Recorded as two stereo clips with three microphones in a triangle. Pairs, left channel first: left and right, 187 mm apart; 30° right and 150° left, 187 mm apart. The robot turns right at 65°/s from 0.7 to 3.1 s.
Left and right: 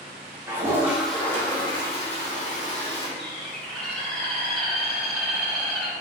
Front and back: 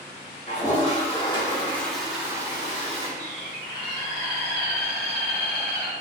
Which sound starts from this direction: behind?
A bird, at 3.2 s.